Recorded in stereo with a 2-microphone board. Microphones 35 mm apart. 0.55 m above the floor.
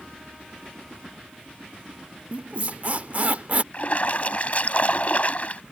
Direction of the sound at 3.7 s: 45° left (ahead or behind).